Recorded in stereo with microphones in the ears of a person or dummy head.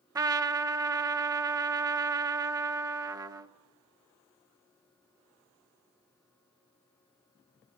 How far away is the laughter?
I don't hear laughter.